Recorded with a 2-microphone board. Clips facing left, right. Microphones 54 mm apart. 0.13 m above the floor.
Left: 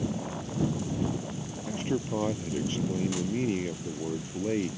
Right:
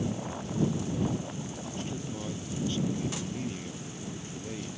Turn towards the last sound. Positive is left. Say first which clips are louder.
# left 10 dB
turn(degrees=40)  # may be behind; listen again after turning